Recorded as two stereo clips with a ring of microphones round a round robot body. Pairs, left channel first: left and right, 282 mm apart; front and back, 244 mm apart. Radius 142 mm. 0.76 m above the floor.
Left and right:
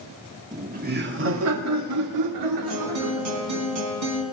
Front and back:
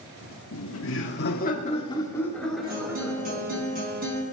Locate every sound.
0.5 s laughter: 20° right, 1.9 m; by 3.6 s 105° right, 3 m
2.6 s a guitar: 120° right, 4 m